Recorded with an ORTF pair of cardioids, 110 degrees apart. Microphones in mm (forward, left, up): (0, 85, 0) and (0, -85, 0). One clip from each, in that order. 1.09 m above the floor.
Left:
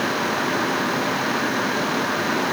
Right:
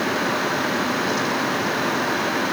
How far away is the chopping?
I don't hear chopping.